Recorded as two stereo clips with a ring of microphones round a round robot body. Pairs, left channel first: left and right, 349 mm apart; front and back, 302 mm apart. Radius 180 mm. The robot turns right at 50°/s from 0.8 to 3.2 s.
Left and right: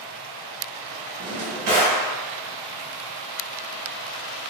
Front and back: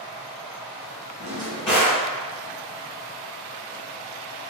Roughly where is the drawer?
Right.